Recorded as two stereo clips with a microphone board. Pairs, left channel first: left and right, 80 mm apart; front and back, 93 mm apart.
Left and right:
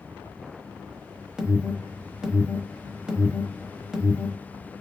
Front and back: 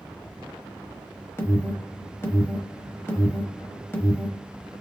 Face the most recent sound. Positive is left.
turn(degrees=-20)